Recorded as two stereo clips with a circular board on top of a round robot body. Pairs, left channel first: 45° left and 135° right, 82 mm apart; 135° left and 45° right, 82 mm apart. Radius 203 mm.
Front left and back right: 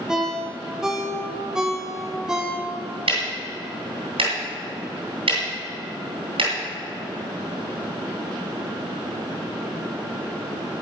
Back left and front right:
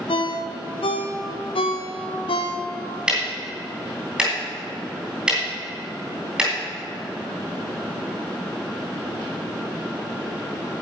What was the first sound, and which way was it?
A ringtone, 140° left.